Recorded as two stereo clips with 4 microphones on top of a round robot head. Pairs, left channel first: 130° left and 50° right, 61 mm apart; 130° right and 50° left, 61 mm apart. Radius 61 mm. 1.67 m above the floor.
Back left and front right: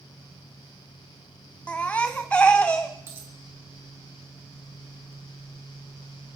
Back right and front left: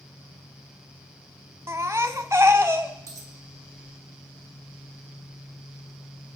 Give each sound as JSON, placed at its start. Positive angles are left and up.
{"t": 1.7, "sound": "a baby crying", "azimuth_deg": 70, "distance_m": 0.6}
{"t": 3.1, "sound": "a dropped coin", "azimuth_deg": 10, "distance_m": 1.8}